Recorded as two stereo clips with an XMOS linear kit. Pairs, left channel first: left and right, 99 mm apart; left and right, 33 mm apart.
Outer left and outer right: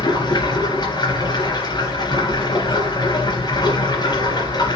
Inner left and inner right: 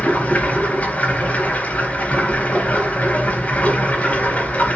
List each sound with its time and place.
0.0 s running water: 50° left (ahead or behind), 4 m